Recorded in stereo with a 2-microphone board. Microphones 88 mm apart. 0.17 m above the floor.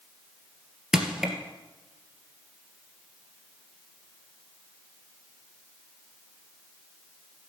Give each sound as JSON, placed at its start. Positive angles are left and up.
{"t": 0.9, "sound": "crushing", "side_deg": -5, "distance_m": 2.0}